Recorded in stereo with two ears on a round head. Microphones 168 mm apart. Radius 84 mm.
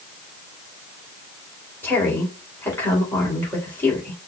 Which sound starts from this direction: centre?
A woman speaking, at 1.8 s.